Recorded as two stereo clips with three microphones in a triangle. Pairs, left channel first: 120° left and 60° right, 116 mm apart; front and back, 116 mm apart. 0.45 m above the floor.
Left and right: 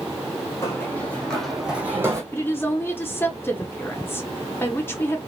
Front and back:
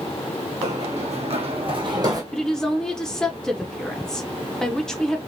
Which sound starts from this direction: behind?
Running footsteps, at 0.6 s.